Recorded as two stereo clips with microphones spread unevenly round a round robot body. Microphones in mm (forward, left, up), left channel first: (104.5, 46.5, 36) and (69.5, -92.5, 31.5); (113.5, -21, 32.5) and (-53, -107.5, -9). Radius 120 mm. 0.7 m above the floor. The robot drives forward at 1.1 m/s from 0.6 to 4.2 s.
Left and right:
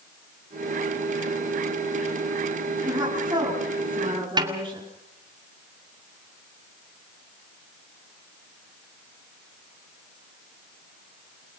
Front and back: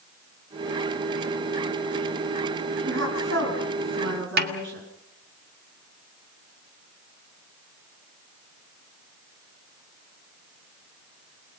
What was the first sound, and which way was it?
A woman speaking, straight behind.